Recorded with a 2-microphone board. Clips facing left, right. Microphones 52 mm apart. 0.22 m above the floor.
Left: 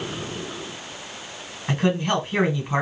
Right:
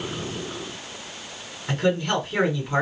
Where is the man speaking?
20° left (ahead or behind), 2 m.